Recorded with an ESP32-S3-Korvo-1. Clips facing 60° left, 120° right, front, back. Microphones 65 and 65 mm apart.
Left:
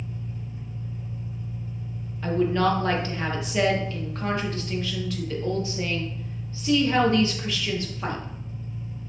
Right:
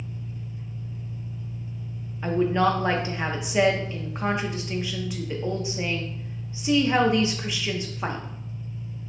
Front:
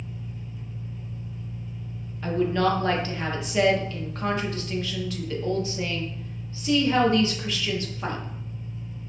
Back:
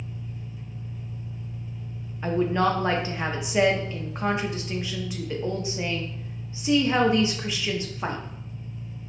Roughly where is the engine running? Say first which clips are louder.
Left 1 dB, even; left.